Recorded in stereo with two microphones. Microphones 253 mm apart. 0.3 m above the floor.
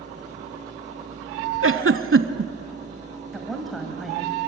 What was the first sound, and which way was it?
A giggle, 55° right (ahead or behind).